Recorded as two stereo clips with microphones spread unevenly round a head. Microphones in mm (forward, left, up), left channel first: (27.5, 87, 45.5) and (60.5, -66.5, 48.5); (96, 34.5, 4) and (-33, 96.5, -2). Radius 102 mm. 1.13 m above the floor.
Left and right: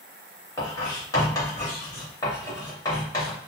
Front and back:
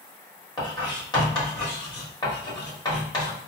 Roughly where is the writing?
Ahead left.